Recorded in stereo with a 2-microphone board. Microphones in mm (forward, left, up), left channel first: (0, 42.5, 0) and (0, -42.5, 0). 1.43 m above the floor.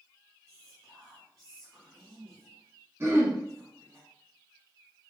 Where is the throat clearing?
30° right (ahead or behind), 0.9 m.